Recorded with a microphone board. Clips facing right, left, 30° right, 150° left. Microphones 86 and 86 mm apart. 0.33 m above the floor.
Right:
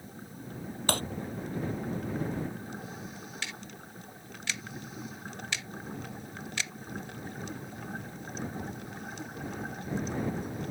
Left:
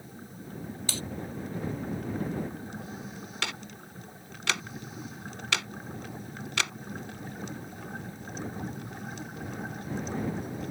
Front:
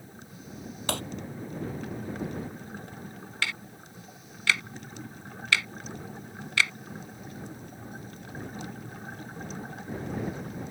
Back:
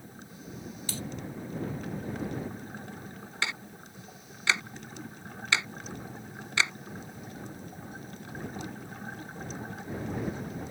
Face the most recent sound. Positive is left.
turn(degrees=85)